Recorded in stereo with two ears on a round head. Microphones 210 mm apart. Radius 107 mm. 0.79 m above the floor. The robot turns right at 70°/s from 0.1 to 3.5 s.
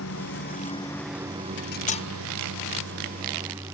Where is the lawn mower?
110° left; by 3.7 s 10° right.